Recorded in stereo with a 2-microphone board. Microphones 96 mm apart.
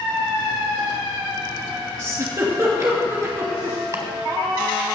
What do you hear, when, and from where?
2.0 s a giggle: 35° right (ahead or behind), 2.5 m
3.9 s chopping: 40° right (ahead or behind), 1.7 m